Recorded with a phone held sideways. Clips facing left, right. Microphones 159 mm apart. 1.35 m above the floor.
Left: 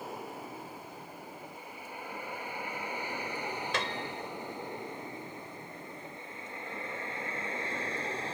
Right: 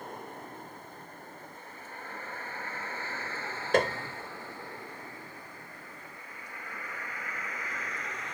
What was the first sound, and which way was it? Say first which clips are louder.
A vehicle: left 1 dB; 5° left (ahead or behind).